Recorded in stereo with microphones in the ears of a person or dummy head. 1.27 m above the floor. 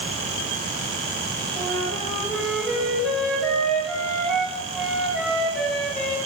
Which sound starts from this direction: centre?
A flute, at 1.6 s.